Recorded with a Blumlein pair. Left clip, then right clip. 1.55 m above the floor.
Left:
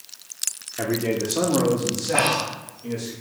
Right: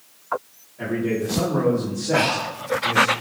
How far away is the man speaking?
About 0.7 m.